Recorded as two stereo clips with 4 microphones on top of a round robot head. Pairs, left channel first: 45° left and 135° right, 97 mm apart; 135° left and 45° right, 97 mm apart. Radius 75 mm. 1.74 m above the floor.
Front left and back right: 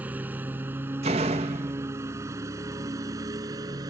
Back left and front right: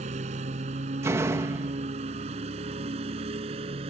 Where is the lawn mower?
60° right; by 3.9 s 80° right.